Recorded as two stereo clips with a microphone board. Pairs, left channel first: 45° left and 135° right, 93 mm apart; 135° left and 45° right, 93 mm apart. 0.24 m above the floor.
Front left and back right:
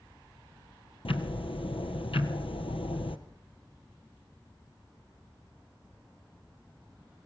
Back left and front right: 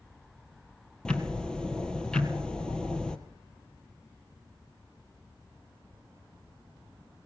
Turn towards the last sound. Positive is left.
turn(degrees=55)